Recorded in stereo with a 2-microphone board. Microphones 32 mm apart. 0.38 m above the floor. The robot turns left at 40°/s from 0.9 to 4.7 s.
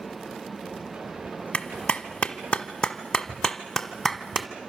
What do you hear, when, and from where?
1.5 s a clap: 35° left (ahead or behind), 1.2 m; by 4.5 s 10° right (ahead or behind), 1.2 m